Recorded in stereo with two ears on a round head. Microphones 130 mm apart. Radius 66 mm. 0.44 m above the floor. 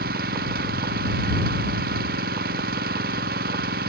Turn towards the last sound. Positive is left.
turn(degrees=-75)  # may be behind; listen again after turning